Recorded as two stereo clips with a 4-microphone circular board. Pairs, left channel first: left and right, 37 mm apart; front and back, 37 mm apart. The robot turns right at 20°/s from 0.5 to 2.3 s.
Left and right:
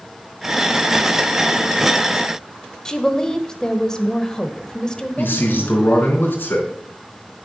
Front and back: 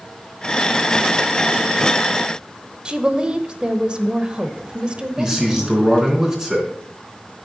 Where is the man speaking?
115° left, 4 m.